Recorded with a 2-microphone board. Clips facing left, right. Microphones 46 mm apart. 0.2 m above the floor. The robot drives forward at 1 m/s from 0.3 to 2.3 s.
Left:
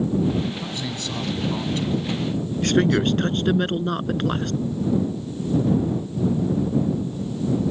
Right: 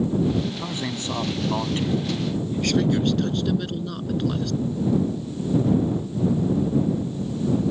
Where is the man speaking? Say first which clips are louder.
Right 1 dB; 25° right (ahead or behind).